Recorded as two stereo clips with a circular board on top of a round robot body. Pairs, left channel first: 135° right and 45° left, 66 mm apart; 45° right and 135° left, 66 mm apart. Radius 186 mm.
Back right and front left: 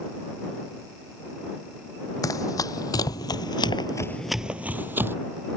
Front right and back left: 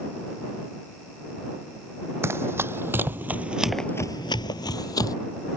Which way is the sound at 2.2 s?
170° right.